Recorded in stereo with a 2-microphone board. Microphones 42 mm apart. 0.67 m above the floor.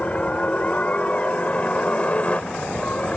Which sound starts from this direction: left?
A helicopter, at 0.0 s.